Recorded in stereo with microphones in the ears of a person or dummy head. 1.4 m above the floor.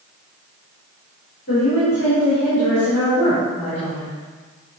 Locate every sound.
1.5 s a woman speaking: 50° left (ahead or behind), 3 m